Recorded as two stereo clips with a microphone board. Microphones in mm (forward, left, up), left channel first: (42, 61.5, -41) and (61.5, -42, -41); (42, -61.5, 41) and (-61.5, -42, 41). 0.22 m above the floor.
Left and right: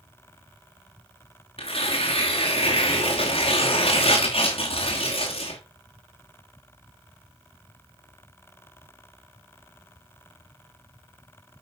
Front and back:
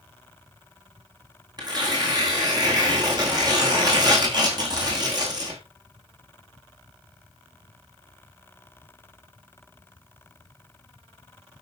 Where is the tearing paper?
120° left, 4 m.